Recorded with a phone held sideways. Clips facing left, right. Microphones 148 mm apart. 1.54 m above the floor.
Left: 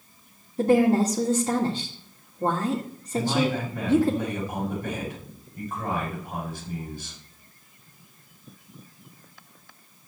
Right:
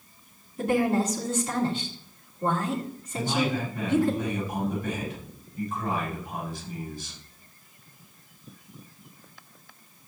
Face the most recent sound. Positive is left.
turn(degrees=55)  # may be behind; listen again after turning